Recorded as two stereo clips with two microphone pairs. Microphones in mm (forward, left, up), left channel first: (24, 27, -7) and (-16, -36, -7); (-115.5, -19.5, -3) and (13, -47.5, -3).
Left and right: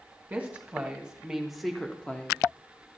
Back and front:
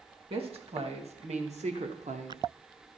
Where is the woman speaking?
55° right, 1.7 m; by 2.4 s 5° right, 0.9 m.